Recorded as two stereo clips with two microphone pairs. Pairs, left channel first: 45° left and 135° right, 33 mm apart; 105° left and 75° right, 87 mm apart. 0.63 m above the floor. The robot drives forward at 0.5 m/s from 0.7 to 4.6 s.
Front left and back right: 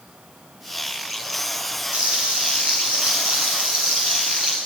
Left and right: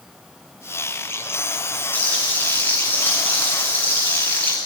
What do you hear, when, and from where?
1.9 s frying: 175° left, 6.5 m